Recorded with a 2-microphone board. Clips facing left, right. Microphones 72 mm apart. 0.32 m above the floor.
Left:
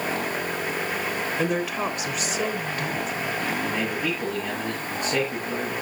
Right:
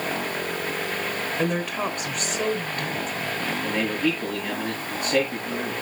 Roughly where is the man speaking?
Centre.